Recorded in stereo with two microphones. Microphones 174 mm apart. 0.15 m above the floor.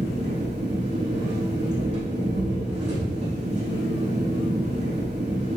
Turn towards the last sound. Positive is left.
turn(degrees=-80)